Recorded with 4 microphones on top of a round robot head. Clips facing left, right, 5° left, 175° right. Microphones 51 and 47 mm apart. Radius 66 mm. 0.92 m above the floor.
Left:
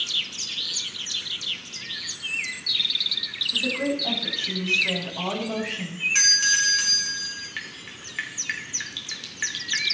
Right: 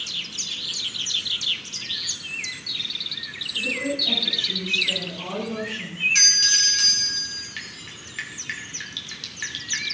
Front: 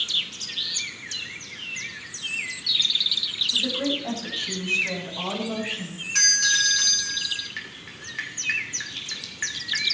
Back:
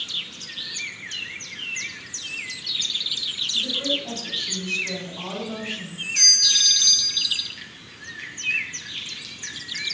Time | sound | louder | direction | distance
3.5 | a woman speaking | even, even | 55° left | 6 m
6.2 | a doorbell | left 2 dB, front 3 dB | 20° left | 5 m
7.6 | dripping | left 1 dB, front 4 dB | 15° left | 2.5 m